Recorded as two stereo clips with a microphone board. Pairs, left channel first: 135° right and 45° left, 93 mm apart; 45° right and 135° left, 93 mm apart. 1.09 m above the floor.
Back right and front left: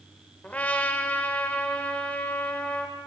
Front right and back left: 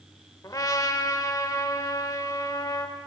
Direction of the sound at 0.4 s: 70° right.